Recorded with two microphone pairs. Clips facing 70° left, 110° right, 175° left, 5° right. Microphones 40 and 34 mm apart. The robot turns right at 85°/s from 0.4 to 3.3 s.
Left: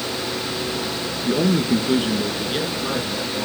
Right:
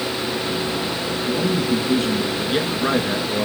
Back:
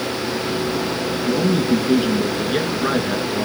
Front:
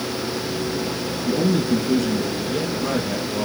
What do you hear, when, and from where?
1.2 s a man speaking: 60° left, 2 m; by 3.5 s 125° right, 2 m